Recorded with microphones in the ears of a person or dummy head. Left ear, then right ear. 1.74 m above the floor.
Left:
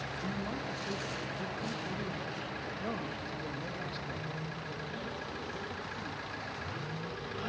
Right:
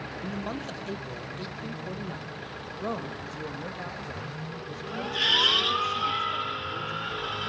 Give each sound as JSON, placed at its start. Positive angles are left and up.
{"t": 0.2, "sound": "a man speaking", "side_deg": -85, "distance_m": 1.9}